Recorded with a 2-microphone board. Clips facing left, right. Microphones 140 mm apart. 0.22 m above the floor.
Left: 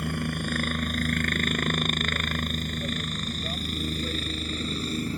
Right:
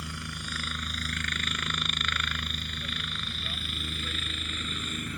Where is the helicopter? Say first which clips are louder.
Left 11 dB; 55° left (ahead or behind); by 5.2 s 35° left (ahead or behind).